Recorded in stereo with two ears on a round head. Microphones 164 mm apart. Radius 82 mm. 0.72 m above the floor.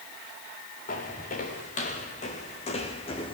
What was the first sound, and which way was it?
Footsteps, 45° left (ahead or behind).